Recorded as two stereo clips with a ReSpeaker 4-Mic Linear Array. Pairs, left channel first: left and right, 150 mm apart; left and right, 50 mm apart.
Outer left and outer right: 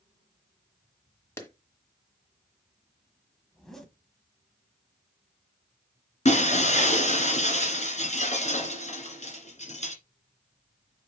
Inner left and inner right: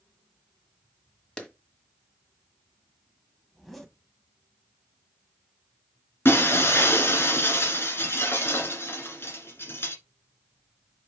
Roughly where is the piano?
No piano in this recording.